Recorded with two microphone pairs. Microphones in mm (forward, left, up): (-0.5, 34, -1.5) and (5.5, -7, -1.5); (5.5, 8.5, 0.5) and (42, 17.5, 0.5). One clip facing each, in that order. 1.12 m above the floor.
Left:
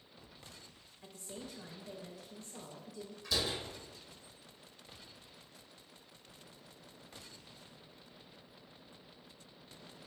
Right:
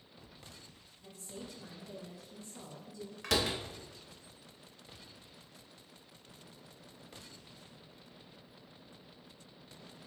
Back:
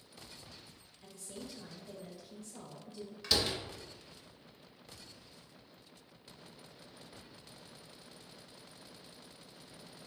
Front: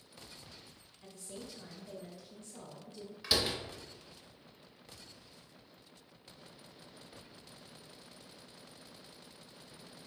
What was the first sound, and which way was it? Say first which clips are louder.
A woman speaking: even, even; 105° left.